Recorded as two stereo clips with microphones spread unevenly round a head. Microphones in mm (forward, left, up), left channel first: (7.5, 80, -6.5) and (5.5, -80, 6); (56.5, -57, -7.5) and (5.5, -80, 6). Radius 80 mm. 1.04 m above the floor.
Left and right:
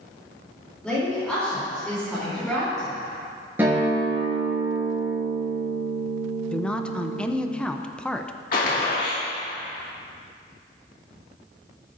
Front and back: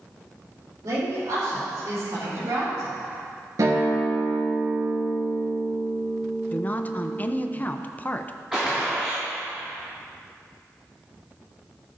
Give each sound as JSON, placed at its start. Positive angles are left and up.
{"t": 0.8, "sound": "a woman speaking", "azimuth_deg": 175, "distance_m": 3.5}
{"t": 3.6, "sound": "a guitar", "azimuth_deg": -170, "distance_m": 4.5}
{"t": 6.5, "sound": "a woman speaking", "azimuth_deg": 15, "distance_m": 0.6}
{"t": 8.5, "sound": "a gunshot", "azimuth_deg": 115, "distance_m": 2.0}